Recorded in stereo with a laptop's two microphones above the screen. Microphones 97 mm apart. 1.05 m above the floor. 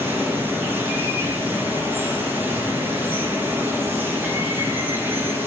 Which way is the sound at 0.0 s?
20° right (ahead or behind).